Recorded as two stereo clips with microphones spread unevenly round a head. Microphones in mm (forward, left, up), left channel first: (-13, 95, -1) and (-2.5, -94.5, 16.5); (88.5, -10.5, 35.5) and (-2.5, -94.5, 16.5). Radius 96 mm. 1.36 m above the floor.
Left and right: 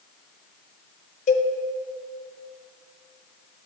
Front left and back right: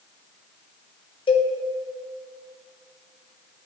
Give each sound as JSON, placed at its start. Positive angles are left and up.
{"t": 1.3, "sound": "a cowbell", "azimuth_deg": 45, "distance_m": 0.6}